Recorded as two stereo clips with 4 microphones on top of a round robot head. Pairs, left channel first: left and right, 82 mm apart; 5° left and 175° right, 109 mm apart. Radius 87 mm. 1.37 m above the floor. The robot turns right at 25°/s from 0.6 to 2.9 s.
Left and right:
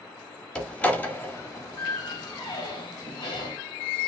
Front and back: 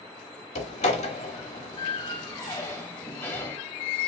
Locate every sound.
0.6 s a door slam: 10° left, 1.6 m; by 3.6 s 70° left, 1.6 m